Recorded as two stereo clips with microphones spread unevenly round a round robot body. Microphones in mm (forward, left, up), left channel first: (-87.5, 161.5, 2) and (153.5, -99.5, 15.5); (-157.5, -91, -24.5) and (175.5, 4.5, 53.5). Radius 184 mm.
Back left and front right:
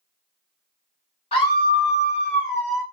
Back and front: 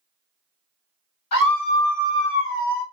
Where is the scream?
155° right, 1.8 m; by 2.8 s 105° right, 2.5 m.